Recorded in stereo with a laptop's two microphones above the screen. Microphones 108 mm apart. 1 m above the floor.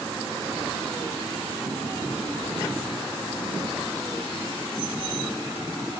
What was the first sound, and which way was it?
Only background noise.